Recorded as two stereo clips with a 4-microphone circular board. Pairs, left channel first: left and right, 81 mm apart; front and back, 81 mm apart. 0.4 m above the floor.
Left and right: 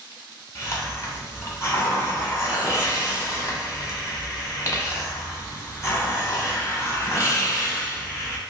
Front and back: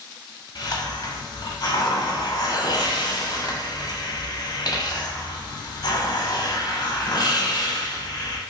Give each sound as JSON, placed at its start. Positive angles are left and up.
{"t": 0.6, "sound": "a hiss", "azimuth_deg": 40, "distance_m": 0.9}